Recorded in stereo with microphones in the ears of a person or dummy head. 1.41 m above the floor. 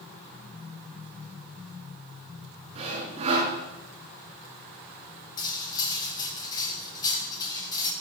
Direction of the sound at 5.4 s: 20° left (ahead or behind).